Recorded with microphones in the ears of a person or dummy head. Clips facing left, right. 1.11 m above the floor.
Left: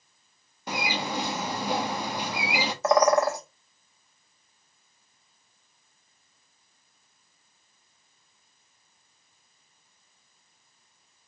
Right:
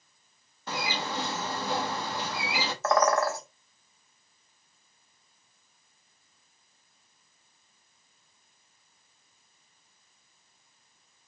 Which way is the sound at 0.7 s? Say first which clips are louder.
Left 3 dB; 15° left (ahead or behind).